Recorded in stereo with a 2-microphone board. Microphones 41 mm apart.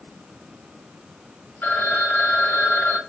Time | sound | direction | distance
1.6 | a phone ringing | 60° left (ahead or behind) | 1.6 m